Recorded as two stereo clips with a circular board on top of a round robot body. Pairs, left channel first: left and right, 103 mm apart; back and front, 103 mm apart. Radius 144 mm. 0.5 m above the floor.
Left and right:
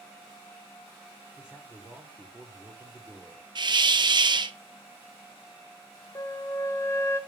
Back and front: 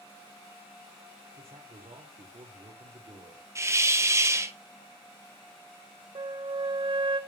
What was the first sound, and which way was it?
A man speaking, 10° right.